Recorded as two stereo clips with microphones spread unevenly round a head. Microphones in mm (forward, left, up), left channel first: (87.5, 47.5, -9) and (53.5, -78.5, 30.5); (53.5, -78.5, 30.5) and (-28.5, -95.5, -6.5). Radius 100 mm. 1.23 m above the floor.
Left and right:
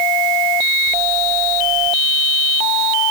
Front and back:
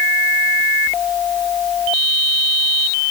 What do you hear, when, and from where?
Only background noise.